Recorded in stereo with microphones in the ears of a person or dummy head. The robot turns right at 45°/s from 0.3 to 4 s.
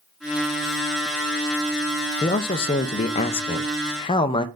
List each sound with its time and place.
2.2 s a man speaking: 50° left, 0.6 m; by 4.5 s 130° left, 0.6 m